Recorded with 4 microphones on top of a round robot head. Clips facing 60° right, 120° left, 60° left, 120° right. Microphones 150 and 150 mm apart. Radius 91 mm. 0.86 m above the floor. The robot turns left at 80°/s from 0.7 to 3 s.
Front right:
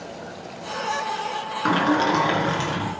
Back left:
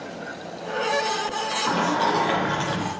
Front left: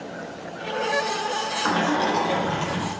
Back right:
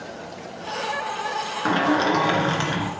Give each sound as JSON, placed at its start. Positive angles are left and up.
{"t": 1.6, "sound": "a sliding door", "azimuth_deg": -60, "distance_m": 3.0}